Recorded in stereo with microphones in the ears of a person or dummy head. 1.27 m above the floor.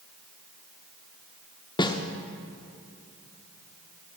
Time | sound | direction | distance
1.8 | a snare drum | 25° left (ahead or behind) | 1.0 m